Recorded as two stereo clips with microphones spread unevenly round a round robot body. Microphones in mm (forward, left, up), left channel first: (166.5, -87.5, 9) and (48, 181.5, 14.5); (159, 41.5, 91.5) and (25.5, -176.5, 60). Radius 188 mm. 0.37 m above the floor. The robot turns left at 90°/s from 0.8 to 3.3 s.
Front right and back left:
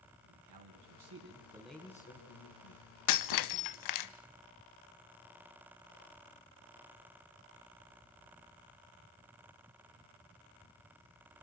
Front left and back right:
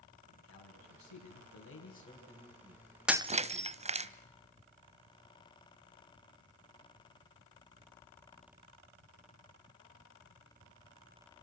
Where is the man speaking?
105° left, 4.5 m; by 4.1 s 120° right, 4.5 m.